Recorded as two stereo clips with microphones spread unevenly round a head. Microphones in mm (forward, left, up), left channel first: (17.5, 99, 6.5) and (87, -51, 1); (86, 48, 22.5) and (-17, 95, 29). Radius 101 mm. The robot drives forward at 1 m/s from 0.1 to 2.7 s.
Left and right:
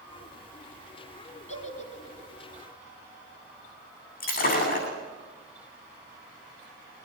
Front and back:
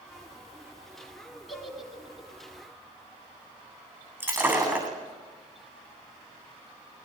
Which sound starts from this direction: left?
Breaking glass, at 4.2 s.